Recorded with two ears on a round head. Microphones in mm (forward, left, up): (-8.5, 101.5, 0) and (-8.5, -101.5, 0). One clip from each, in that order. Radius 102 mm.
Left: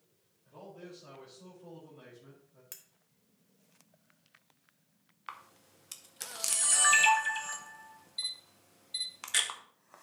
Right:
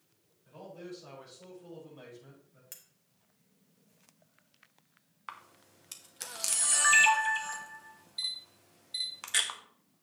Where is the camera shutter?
5° left (ahead or behind), 0.6 m.